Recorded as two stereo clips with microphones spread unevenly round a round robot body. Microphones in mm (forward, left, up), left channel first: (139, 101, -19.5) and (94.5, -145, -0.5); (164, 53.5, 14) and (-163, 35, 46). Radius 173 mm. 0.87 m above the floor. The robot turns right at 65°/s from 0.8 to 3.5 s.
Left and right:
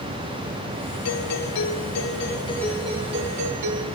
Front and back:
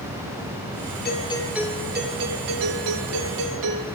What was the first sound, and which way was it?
A doorbell, 60° left.